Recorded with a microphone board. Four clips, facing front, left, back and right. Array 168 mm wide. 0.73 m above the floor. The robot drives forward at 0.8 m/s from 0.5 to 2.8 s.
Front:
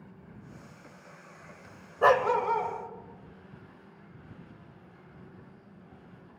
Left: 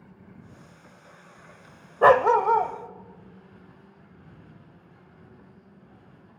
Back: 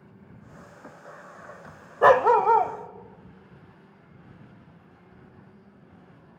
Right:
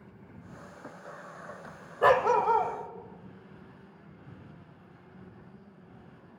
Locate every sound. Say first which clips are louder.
2.0 s a dog barking: left 5 dB, back 6 dB; 120° left, 0.5 m; by 2.7 s 160° left, 0.9 m